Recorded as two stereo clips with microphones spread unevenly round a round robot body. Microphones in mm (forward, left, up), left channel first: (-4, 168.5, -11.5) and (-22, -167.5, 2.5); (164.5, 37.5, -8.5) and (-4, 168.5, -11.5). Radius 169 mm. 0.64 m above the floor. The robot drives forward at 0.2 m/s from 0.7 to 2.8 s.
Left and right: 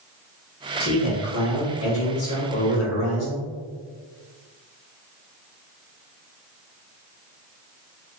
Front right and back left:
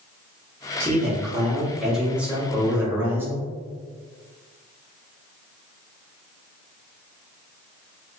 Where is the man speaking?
45° left, 1.4 m; by 3.5 s 65° left, 1.2 m.